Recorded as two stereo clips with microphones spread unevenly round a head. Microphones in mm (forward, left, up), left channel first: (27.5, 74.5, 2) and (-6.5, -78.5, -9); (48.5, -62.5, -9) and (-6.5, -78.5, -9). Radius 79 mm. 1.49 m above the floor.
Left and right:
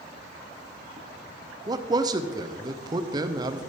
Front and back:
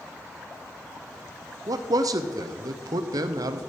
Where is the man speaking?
170° right, 0.7 m.